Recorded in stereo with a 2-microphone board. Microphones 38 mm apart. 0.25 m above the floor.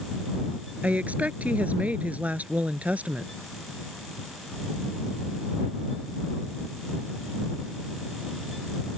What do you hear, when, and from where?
0.8 s a woman speaking: 40° right (ahead or behind)